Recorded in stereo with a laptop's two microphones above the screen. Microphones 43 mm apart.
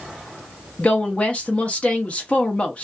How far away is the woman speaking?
About 0.6 m.